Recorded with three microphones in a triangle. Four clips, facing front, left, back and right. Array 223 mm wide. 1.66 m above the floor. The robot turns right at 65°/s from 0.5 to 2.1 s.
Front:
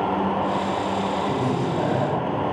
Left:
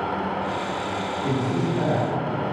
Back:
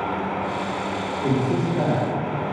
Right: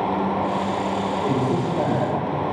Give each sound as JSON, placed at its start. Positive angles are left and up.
{"t": 1.2, "sound": "a man speaking", "azimuth_deg": -170, "distance_m": 1.7}